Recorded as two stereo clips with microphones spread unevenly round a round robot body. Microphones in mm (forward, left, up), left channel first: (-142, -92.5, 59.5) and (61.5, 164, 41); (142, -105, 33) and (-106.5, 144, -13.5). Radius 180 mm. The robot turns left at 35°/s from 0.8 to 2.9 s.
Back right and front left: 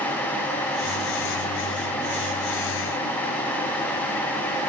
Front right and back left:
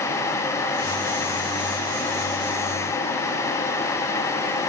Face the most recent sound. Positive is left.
No sound to turn to.